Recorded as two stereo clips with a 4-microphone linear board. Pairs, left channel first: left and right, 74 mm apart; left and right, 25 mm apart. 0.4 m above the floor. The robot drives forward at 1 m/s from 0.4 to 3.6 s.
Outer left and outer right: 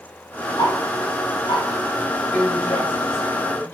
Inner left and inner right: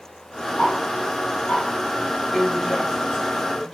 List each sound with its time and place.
0.6 s ticking: 55° left (ahead or behind), 4 m; by 1.6 s 70° left (ahead or behind), 3.5 m
2.3 s a woman speaking: 25° left (ahead or behind), 3 m; by 3.8 s 20° left (ahead or behind), 4 m